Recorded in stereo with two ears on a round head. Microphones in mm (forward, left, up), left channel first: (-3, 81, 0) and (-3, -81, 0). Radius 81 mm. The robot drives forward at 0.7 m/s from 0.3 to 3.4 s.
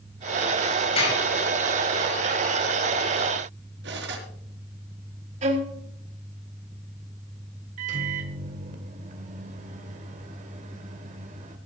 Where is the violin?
40° right (ahead or behind), 2 m.